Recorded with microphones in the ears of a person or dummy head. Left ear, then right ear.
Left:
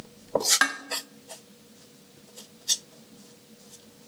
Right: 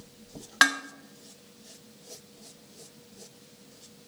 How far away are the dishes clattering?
About 0.5 m.